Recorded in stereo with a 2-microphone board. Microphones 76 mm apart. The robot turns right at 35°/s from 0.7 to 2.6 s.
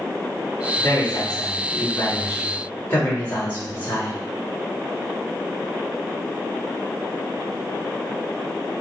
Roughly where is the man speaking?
Left.